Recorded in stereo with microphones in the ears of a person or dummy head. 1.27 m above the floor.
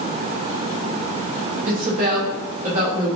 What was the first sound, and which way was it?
A woman speaking, 50° right (ahead or behind).